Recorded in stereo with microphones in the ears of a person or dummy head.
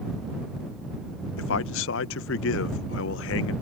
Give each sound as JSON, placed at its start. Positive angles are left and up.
{"t": 1.4, "sound": "a man speaking", "side_deg": 60}